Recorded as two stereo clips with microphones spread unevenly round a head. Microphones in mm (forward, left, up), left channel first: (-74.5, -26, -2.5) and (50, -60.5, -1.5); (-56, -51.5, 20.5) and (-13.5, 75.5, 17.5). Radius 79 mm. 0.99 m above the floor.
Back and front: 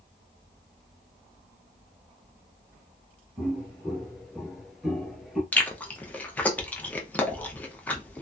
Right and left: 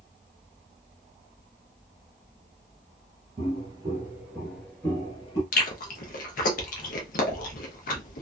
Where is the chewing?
120° right, 0.7 m.